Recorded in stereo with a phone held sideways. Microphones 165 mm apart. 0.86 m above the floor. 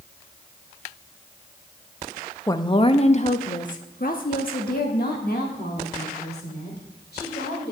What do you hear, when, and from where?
2.5 s a woman speaking: 20° left (ahead or behind), 0.6 m; by 7.7 s 75° left (ahead or behind), 3 m